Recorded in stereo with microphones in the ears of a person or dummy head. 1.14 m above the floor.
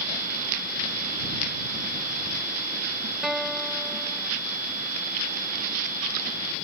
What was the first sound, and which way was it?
A guitar, centre (ahead or behind).